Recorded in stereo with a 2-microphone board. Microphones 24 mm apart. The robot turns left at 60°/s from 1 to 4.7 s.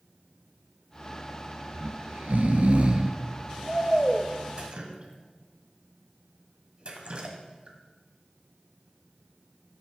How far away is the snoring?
About 1.0 m.